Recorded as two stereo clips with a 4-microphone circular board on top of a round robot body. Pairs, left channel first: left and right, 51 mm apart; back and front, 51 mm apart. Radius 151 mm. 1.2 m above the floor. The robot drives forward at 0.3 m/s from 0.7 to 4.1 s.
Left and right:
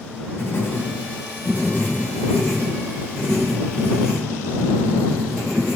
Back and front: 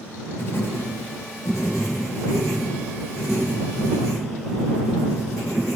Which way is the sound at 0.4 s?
135° left.